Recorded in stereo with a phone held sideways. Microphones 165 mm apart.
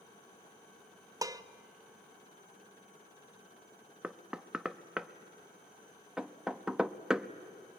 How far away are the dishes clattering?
About 0.5 m.